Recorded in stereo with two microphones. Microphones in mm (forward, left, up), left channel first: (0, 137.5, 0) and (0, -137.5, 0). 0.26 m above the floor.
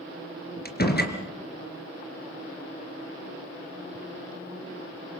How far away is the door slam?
About 3 m.